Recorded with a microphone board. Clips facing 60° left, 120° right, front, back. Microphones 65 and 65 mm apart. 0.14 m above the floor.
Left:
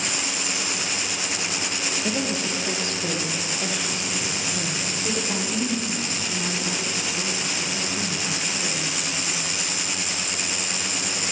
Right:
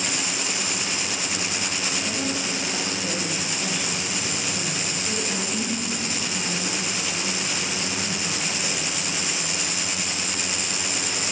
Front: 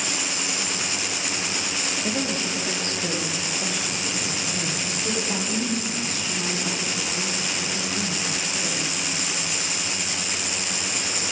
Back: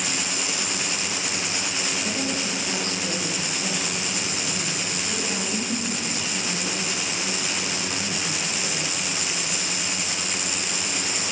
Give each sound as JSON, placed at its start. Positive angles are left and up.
{"t": 2.0, "sound": "a woman speaking", "azimuth_deg": 55, "distance_m": 3.0}